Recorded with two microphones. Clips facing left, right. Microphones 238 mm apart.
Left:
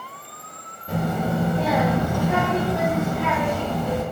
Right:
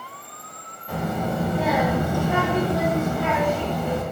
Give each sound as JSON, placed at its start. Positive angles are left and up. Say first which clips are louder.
{"t": 0.9, "sound": "a child speaking", "louder": "left 2 dB", "side_deg": 20, "distance_m": 0.7}